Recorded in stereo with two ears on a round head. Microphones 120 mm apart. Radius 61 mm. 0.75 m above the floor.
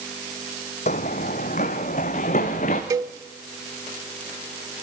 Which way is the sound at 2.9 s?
30° right (ahead or behind).